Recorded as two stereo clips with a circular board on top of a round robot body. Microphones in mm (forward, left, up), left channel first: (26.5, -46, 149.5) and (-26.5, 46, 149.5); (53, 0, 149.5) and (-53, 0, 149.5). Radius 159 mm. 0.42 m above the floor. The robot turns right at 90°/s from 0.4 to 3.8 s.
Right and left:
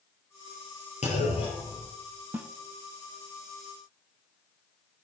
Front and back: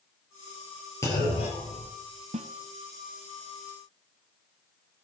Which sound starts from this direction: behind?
A snare drum, at 2.3 s.